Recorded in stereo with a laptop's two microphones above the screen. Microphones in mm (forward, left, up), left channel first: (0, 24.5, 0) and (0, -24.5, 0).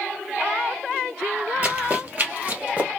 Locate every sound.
1.6 s running footsteps: 25° right (ahead or behind), 1.3 m; by 2.9 s 35° right (ahead or behind), 1.0 m